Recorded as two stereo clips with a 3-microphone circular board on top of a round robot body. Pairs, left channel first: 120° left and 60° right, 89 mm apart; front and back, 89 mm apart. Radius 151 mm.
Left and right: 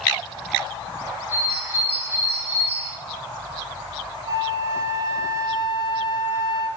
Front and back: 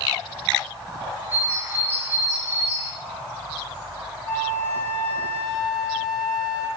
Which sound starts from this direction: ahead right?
A flute, at 4.2 s.